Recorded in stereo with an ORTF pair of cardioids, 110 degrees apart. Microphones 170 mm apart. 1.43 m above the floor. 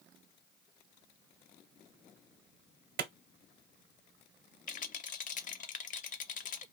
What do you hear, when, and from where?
3.0 s a clap: 65° right, 1.0 m
4.7 s a rattle: 50° left, 0.6 m